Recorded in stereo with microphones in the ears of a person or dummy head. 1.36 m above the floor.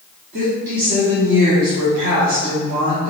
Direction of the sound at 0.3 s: 60° right (ahead or behind).